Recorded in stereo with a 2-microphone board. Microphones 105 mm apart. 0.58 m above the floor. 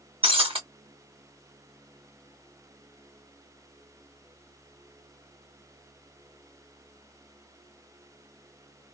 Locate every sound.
0.2 s breaking glass: 60° right (ahead or behind), 2 m